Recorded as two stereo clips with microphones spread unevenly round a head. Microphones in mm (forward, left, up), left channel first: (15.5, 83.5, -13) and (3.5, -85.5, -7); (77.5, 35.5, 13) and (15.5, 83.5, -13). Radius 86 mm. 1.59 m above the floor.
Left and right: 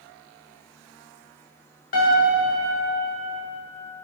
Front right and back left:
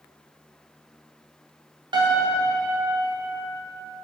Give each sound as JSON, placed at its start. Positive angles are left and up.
{"t": 1.9, "sound": "a piano", "azimuth_deg": 130, "distance_m": 2.5}